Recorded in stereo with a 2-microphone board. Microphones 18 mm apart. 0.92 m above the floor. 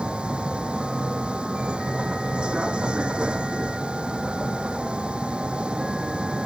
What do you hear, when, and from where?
0.0 s a vehicle: 90° right